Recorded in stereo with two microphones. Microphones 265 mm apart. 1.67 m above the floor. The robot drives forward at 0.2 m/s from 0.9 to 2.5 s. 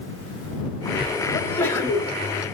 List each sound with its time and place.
1.3 s a sneeze: 10° left (ahead or behind), 1.6 m